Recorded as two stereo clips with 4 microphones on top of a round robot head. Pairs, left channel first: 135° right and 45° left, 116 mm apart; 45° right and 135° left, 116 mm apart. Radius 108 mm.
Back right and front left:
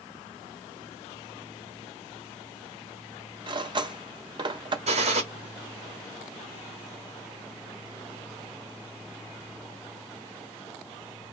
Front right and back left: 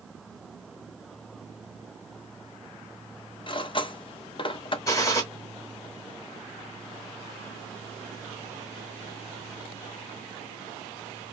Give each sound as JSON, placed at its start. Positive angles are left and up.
{"t": 3.5, "sound": "cutlery clinking", "azimuth_deg": 0, "distance_m": 0.5}
{"t": 4.9, "sound": "a gunshot", "azimuth_deg": 20, "distance_m": 0.9}